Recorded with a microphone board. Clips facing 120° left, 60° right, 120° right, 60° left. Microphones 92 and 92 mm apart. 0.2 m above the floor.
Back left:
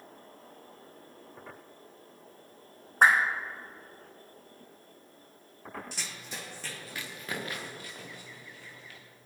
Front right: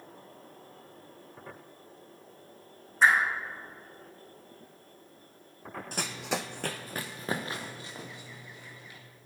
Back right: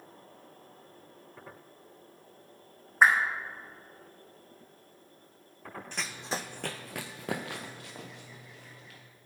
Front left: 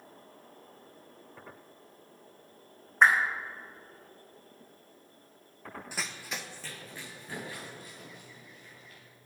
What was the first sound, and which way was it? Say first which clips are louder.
A whoosh: back left 1 dB, even; 155° left.